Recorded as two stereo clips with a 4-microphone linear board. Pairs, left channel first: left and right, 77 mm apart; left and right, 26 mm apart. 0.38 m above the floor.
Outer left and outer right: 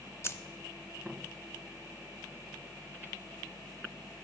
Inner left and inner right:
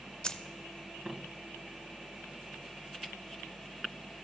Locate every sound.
0.2 s keys jangling: 35° left (ahead or behind), 0.6 m